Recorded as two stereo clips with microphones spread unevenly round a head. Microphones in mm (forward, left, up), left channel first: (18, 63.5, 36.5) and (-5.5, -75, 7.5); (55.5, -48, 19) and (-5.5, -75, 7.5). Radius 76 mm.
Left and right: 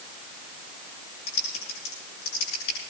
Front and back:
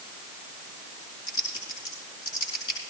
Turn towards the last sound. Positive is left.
turn(degrees=60)